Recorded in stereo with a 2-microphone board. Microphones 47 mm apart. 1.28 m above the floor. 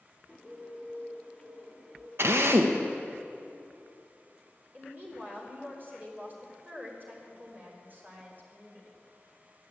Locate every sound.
0.3 s a bird: 10° left (ahead or behind), 1.0 m
2.2 s a drill: 60° right (ahead or behind), 1.0 m
4.7 s a woman speaking: 45° right (ahead or behind), 3.5 m